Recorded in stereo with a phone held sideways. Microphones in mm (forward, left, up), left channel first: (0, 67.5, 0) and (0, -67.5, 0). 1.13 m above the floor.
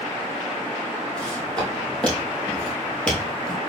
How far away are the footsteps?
About 3 m.